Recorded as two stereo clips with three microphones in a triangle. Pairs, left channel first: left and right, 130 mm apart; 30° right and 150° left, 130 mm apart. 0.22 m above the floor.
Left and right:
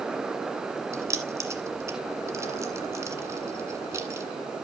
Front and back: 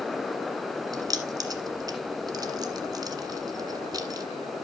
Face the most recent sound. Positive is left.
turn(degrees=-155)